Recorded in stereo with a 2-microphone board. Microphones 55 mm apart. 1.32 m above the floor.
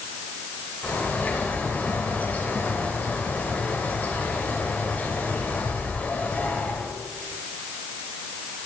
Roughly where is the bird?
Left.